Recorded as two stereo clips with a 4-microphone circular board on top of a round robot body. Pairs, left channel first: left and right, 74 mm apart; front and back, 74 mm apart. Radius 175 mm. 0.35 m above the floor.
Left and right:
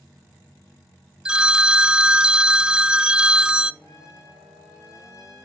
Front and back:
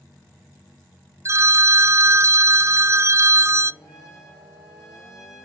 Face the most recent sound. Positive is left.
turn(degrees=45)